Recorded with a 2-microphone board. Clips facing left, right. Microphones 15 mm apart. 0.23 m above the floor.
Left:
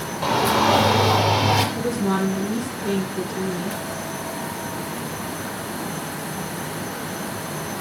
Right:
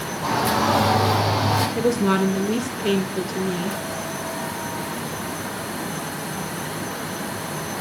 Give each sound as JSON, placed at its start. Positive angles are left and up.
{"t": 0.2, "sound": "a shout", "side_deg": 35, "distance_m": 7.5}
{"t": 1.8, "sound": "a woman speaking", "side_deg": -75, "distance_m": 5.0}